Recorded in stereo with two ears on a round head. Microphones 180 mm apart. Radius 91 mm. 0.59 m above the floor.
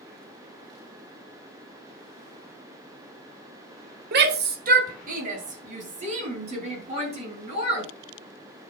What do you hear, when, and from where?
4.1 s a shout: 50° right (ahead or behind), 1.7 m; by 7.9 s 30° right (ahead or behind), 5.5 m